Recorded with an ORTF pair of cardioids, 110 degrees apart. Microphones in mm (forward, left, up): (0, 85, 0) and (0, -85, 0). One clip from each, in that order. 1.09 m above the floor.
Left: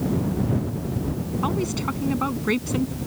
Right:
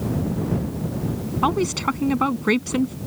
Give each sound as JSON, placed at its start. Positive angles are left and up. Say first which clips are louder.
{"t": 1.4, "sound": "a woman speaking", "louder": "right 6 dB", "azimuth_deg": -50}